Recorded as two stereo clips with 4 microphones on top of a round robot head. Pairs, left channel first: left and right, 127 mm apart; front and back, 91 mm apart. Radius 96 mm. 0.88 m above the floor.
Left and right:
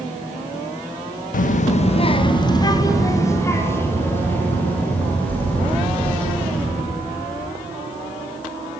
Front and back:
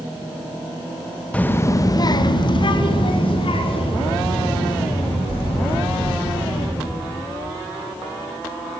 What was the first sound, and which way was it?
A child speaking, 80° left.